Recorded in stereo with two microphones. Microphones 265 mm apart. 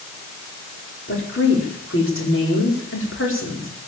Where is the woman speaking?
50° left (ahead or behind), 4.5 m.